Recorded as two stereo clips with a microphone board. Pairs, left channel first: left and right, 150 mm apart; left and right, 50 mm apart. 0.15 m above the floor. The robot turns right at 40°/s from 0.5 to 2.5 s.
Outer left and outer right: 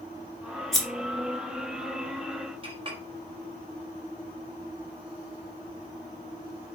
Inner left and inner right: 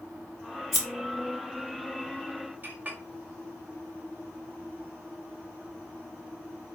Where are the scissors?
Centre (ahead or behind), 1.6 m.